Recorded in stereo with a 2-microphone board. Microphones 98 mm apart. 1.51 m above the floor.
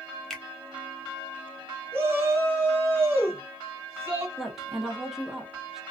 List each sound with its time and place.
0.3 s a finger snap: 5° left (ahead or behind), 0.7 m
1.9 s a shout: 25° right (ahead or behind), 1.1 m
4.4 s a woman speaking: 5° right (ahead or behind), 0.8 m